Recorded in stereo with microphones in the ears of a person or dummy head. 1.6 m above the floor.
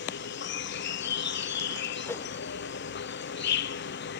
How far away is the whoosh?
About 1.3 m.